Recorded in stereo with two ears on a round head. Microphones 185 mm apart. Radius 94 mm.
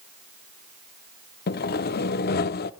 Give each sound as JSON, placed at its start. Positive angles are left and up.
{"t": 1.5, "sound": "sawing", "side_deg": 50, "distance_m": 0.6}